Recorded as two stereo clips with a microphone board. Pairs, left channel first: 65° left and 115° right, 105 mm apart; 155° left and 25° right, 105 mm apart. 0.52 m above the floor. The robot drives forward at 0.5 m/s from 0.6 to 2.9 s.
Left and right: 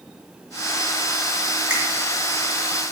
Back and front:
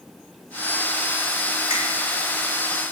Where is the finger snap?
170° left, 2.5 m.